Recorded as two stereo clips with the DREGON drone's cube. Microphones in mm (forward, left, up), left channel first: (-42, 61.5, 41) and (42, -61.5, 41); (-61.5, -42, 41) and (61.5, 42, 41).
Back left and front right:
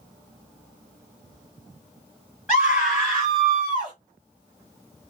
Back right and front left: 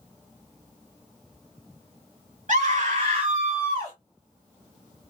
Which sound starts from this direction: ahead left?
A scream, at 2.5 s.